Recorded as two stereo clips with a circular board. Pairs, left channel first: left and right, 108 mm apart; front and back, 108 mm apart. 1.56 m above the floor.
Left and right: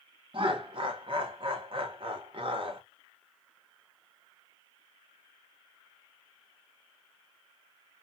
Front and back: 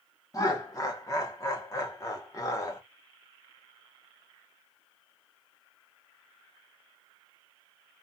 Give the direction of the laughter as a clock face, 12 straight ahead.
2 o'clock.